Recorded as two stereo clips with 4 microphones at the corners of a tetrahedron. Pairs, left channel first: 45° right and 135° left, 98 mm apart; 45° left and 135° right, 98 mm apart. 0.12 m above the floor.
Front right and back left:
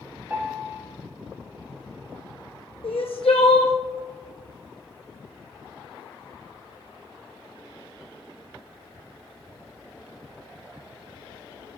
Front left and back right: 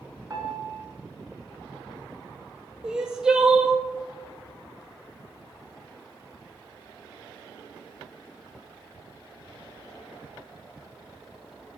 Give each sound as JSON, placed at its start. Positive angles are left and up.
{"t": 0.3, "sound": "a piano", "azimuth_deg": -170, "distance_m": 1.0}
{"t": 2.8, "sound": "crying", "azimuth_deg": -50, "distance_m": 0.7}